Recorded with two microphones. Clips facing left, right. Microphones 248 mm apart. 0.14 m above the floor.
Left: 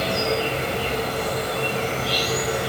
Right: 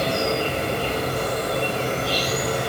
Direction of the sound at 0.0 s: 50° right (ahead or behind).